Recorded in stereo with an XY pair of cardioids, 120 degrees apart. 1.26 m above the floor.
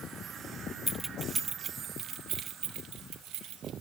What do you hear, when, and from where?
0.9 s keys jangling: 5° right, 0.6 m; by 3.7 s 70° right, 2 m